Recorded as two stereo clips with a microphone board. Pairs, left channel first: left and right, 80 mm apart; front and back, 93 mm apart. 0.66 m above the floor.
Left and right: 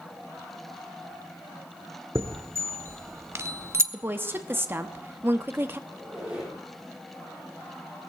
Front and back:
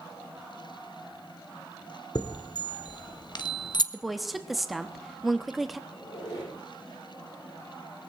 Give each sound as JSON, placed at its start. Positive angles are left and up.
{"t": 2.1, "sound": "a chime", "azimuth_deg": -35, "distance_m": 1.0}
{"t": 3.9, "sound": "a woman speaking", "azimuth_deg": -90, "distance_m": 1.0}
{"t": 5.9, "sound": "a squeak", "azimuth_deg": -10, "distance_m": 7.5}